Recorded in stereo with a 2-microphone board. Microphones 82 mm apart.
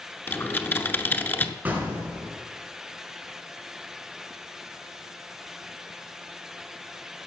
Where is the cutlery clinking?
I don't hear cutlery clinking.